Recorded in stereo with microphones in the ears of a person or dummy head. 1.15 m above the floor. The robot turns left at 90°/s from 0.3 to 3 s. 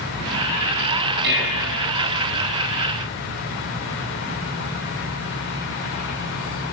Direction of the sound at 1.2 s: 60° right.